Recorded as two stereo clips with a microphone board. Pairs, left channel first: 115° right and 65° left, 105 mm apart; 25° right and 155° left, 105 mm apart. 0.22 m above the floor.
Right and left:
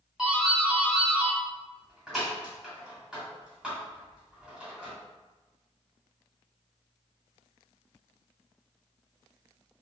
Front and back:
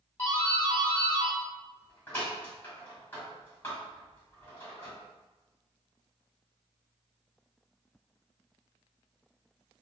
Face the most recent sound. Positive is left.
turn(degrees=0)